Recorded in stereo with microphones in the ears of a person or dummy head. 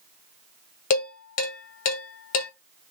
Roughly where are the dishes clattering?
Left.